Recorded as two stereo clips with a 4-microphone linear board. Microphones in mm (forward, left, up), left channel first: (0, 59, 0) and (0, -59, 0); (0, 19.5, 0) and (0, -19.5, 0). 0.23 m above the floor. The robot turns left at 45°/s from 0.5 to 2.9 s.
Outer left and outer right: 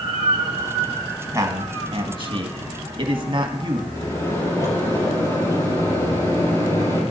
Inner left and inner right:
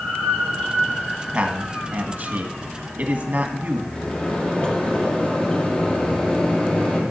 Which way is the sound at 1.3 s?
30° right (ahead or behind).